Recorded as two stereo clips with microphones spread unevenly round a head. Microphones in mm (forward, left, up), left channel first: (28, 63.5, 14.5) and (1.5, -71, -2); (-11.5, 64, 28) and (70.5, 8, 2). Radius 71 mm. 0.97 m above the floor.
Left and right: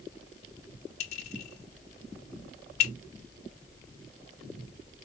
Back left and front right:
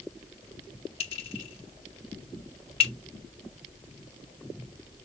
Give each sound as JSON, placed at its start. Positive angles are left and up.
{"t": 1.0, "sound": "a clink", "azimuth_deg": 125, "distance_m": 2.5}